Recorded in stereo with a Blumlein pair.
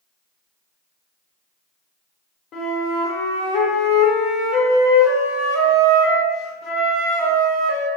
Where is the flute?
35° left, 0.8 m.